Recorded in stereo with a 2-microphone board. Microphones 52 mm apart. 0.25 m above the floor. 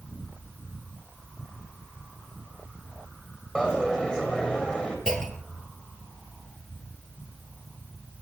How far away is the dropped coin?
About 3 m.